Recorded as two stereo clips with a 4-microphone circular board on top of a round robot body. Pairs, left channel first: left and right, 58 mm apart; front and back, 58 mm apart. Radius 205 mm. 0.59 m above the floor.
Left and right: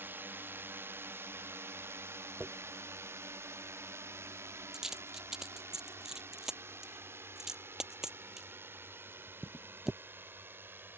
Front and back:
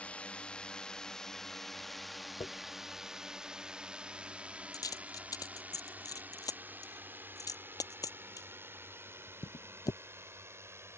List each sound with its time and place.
0.0 s a drone: 60° right; by 11.0 s 140° right
2.4 s a dropped coin: 10° right